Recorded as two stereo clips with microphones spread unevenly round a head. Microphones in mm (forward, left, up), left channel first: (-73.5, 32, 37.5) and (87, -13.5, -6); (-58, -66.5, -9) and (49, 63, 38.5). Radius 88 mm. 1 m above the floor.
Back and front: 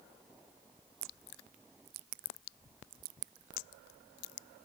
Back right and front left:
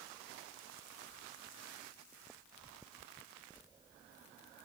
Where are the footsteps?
No footsteps in this recording.